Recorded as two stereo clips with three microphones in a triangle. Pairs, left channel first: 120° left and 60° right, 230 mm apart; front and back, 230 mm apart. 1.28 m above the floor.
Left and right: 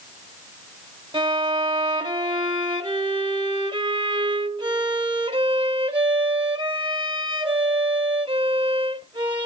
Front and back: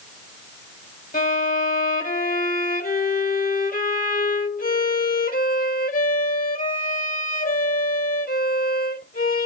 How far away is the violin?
About 1.2 m.